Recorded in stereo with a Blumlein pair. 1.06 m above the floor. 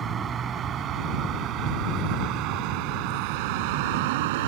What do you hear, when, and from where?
0.0 s a vehicle: 25° right; by 4.5 s 50° right